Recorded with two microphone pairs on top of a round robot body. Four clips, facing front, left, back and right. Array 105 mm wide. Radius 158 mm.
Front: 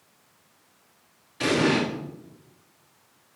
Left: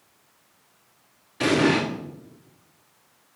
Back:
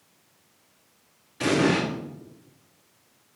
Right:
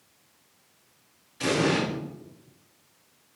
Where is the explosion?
85° left, 3 m.